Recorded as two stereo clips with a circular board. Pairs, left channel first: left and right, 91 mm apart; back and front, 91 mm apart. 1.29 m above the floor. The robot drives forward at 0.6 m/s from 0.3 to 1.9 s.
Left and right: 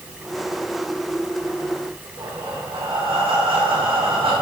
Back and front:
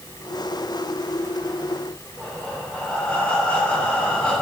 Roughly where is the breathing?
Right.